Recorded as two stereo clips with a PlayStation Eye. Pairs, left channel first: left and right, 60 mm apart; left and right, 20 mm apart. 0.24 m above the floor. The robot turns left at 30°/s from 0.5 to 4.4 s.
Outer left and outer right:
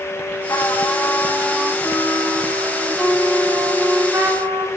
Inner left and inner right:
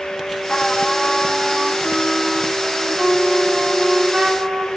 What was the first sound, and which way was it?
A trumpet, 55° left.